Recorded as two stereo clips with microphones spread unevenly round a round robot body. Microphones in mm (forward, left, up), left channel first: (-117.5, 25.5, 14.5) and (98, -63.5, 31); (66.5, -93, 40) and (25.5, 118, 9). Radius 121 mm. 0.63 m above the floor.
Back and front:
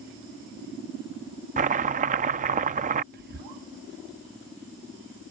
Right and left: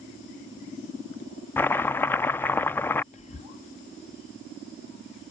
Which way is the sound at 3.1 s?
30° right.